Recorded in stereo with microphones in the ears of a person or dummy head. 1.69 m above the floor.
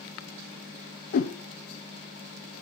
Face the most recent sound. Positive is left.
turn(degrees=55)  # may be behind; listen again after turning